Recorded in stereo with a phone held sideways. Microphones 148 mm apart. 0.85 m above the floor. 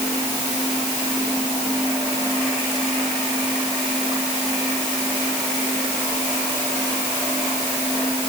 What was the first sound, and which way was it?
Only background noise.